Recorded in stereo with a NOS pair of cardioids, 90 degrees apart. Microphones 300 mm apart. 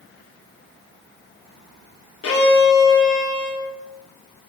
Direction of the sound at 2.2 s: 45° left.